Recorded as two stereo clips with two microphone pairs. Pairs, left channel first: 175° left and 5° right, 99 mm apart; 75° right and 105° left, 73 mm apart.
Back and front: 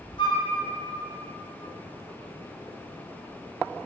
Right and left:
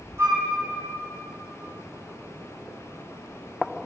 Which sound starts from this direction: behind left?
A flute, at 0.2 s.